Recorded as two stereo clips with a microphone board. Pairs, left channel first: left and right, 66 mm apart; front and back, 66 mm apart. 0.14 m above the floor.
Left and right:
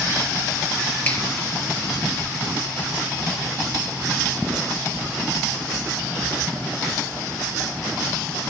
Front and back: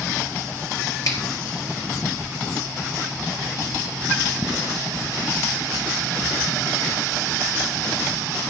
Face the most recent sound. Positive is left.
turn(degrees=25)